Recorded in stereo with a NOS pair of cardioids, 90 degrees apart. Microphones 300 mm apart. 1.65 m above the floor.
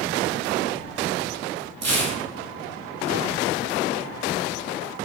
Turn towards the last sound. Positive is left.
turn(degrees=-60)